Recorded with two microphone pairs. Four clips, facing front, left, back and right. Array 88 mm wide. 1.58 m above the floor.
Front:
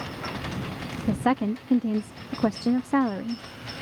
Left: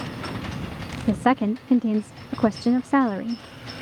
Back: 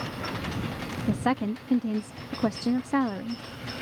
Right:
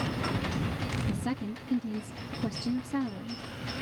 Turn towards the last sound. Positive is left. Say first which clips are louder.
# left 17 dB, front 3 dB
turn(degrees=85)